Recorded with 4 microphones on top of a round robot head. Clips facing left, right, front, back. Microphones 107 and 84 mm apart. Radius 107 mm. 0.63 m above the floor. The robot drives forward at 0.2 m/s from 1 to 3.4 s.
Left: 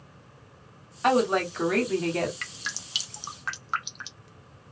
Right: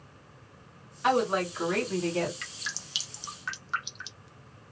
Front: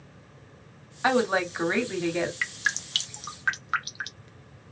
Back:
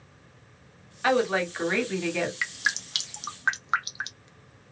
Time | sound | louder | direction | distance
1.0 | a woman speaking | left 3 dB, even | 65° left | 1.9 m
2.4 | dripping | left 3 dB, even | 95° left | 0.7 m